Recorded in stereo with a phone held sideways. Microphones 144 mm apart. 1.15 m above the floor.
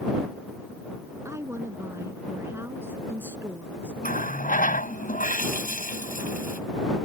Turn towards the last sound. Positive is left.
turn(degrees=80)